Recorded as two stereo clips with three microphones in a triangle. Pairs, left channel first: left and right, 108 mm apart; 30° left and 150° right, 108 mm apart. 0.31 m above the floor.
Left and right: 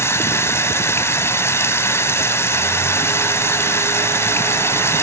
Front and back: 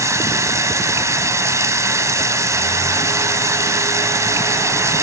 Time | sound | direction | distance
0.0 | running water | 150° left | 1.6 m